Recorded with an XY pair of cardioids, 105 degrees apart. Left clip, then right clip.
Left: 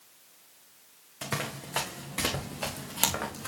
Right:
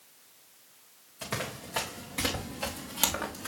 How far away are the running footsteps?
About 3.5 m.